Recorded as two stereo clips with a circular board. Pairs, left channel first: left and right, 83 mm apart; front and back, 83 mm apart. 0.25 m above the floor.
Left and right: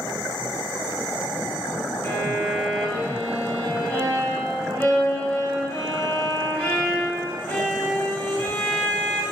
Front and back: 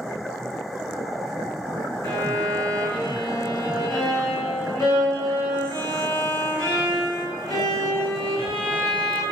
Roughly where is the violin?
Ahead left.